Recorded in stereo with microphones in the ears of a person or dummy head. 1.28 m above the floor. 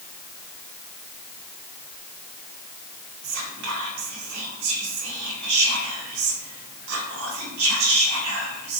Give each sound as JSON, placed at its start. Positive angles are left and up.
{"t": 3.2, "sound": "whispering", "side_deg": -75, "distance_m": 0.9}